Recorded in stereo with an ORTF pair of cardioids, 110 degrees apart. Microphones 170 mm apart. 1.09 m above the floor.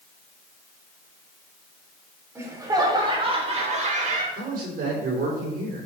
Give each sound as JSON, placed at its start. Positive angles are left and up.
{"t": 2.4, "sound": "laughter", "azimuth_deg": -15, "distance_m": 3.0}
{"t": 4.3, "sound": "a man speaking", "azimuth_deg": -60, "distance_m": 4.0}